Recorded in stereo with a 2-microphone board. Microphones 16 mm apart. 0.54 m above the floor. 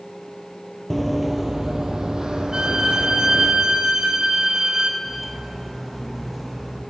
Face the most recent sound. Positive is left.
turn(degrees=-5)  # may be behind; listen again after turning